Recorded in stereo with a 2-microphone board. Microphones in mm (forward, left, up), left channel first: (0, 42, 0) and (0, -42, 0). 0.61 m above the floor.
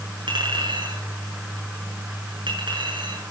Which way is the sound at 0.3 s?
70° right (ahead or behind).